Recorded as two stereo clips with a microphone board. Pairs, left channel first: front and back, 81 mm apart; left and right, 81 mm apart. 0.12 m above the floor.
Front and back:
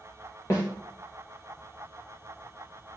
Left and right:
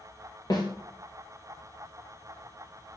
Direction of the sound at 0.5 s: 55° left.